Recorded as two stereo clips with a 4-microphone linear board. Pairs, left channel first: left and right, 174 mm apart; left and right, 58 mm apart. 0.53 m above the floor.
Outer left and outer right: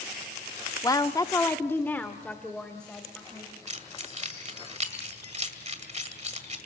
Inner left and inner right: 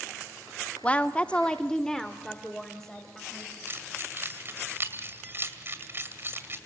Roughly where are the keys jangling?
Right.